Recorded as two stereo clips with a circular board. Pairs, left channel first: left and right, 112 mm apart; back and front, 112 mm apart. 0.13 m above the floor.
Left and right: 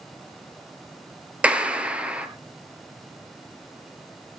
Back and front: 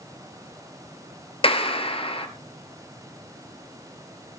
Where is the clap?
165° right, 1.6 m.